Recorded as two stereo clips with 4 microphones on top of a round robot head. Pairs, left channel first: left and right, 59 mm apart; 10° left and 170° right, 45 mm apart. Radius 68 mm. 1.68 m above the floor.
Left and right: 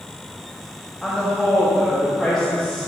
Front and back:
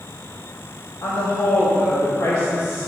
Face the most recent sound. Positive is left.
turn(degrees=5)